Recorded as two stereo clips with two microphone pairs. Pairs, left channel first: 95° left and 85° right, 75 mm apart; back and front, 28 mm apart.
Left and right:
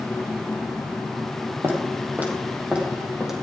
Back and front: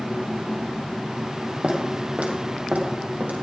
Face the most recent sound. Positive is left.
turn(degrees=5)